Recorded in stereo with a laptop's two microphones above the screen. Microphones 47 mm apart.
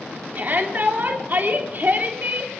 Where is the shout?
45° right (ahead or behind), 3 m.